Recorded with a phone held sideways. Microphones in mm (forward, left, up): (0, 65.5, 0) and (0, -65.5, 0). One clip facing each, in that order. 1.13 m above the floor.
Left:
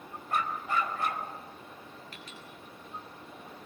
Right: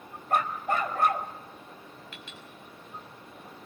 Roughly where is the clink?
Left.